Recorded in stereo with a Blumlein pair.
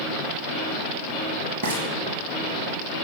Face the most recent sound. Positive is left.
turn(degrees=-55)